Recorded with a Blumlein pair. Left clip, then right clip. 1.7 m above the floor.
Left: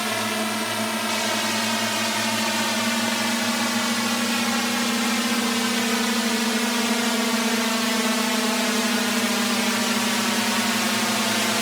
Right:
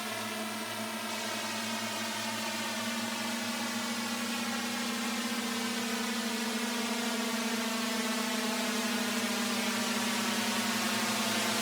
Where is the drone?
30° left; by 11.6 s 25° left.